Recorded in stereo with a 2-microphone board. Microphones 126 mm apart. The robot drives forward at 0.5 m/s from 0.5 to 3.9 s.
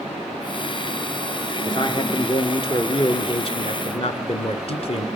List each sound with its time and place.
1.6 s a man speaking: 40° left (ahead or behind), 3 m; by 5.1 s 50° left (ahead or behind), 2.5 m